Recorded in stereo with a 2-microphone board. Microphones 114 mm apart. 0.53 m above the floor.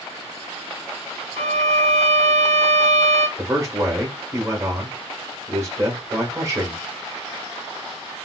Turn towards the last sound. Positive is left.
turn(degrees=-25)  # may be behind; listen again after turning